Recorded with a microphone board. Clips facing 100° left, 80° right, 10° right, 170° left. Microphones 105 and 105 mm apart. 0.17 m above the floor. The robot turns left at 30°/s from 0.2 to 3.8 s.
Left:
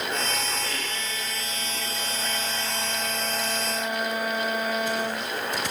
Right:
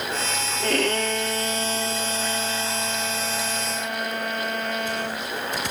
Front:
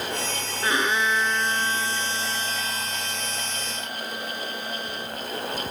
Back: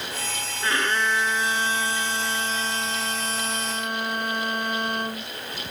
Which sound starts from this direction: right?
A violin, at 0.6 s.